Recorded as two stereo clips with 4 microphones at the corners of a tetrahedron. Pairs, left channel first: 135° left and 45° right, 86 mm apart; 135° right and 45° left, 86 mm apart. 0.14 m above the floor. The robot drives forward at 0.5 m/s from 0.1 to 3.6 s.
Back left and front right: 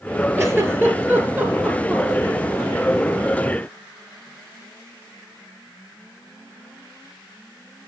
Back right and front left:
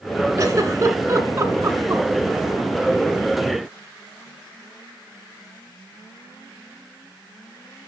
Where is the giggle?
5° left, 2.5 m; by 2.0 s 10° left, 2.0 m.